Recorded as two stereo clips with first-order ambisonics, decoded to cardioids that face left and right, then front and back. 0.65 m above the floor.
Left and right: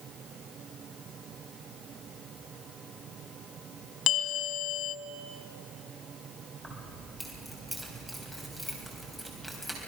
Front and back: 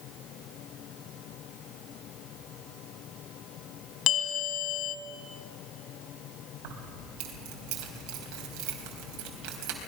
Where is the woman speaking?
I don't hear a woman speaking.